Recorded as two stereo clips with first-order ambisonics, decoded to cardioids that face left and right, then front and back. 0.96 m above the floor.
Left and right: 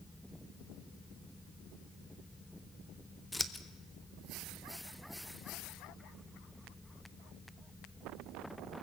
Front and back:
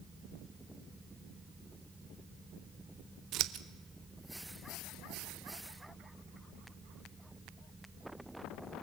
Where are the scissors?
170° left, 0.9 m.